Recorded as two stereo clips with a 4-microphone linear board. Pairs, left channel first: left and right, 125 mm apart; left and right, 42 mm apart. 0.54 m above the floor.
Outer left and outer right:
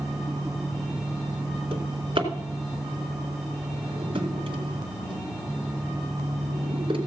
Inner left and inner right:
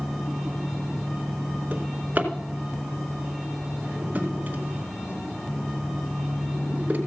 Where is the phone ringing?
No phone ringing in this recording.